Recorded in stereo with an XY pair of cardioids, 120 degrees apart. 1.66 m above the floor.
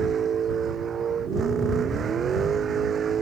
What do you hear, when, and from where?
0.0 s a vehicle: 45° right